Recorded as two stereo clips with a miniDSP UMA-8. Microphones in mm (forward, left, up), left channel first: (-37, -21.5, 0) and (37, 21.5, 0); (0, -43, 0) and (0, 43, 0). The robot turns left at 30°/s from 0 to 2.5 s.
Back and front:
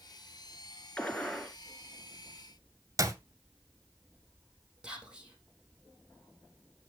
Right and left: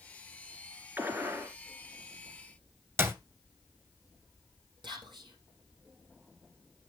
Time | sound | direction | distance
1.0 | a gunshot | 145° left | 1.9 m
3.0 | a clap | 45° left | 1.6 m
4.8 | whispering | 110° left | 4 m